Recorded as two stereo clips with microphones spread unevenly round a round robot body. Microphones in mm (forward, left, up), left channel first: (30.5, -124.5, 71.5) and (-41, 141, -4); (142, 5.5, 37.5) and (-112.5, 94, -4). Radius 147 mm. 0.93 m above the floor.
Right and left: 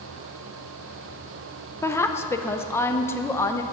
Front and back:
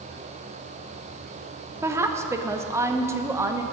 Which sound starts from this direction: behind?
A woman speaking, at 1.8 s.